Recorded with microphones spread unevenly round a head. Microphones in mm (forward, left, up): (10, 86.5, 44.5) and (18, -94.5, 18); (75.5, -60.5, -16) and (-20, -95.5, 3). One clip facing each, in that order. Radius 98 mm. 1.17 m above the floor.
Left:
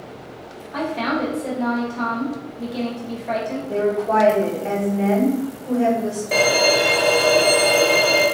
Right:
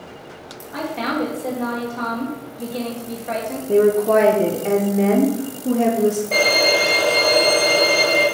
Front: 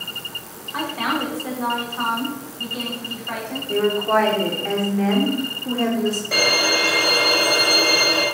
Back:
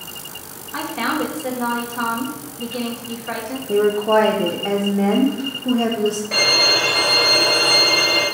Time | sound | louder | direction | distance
0.7 | a woman speaking | left 1 dB, back 1 dB | 175° right | 1.2 m
3.7 | a woman speaking | right 6 dB, back 3 dB | 90° right | 0.6 m
6.3 | a violin | left 1 dB, even | 120° left | 1.0 m